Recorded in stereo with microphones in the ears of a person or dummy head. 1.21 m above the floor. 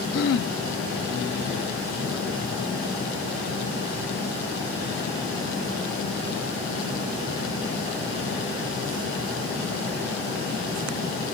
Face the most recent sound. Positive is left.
turn(degrees=70)  # may be behind; listen again after turning